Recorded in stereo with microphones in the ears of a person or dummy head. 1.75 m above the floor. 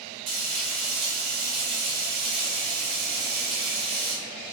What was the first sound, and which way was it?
Frying, 45° right (ahead or behind).